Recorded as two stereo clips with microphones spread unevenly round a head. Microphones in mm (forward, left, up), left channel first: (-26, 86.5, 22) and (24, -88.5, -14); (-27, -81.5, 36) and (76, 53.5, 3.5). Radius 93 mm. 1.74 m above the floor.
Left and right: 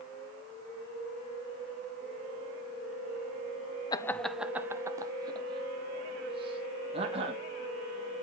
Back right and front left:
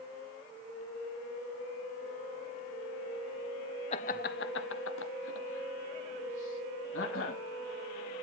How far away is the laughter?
About 0.5 m.